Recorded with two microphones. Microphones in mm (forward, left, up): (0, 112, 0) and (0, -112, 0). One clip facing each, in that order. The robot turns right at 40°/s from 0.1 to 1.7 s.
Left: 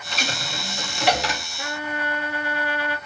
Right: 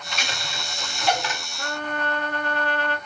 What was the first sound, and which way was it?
A dropped coin, 35° left (ahead or behind).